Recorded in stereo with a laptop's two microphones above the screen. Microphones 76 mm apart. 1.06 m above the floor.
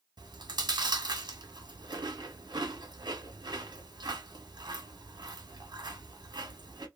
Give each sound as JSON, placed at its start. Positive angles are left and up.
{"t": 0.2, "sound": "chewing", "side_deg": -75, "distance_m": 1.2}